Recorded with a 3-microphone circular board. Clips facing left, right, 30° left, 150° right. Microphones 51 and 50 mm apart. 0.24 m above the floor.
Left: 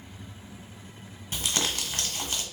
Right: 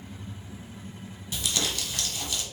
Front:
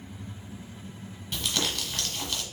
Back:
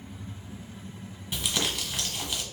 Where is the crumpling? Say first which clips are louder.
Left 1 dB, even; 135° left, 1.1 m.